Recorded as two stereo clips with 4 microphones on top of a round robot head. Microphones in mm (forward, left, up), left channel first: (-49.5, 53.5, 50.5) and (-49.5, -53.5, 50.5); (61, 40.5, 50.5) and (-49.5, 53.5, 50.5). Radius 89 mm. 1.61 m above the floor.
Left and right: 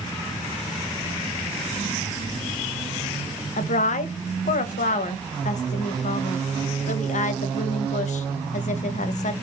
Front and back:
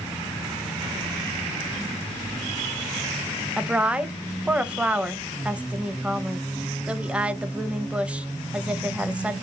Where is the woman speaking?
90° left, 0.5 m.